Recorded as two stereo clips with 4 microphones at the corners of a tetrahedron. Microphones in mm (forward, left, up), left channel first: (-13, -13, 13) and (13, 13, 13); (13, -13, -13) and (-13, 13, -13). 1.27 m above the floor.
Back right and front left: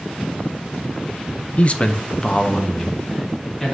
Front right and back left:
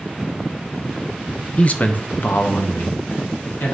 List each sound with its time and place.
1.6 s a man speaking: 95° right, 0.7 m; by 3.8 s 55° right, 2.5 m